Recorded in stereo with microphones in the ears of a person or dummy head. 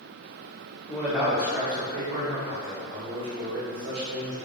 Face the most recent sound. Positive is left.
turn(degrees=-55)  # may be behind; listen again after turning